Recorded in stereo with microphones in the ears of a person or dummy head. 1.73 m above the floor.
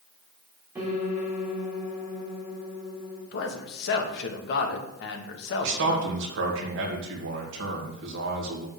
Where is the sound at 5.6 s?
60° right (ahead or behind), 2 m.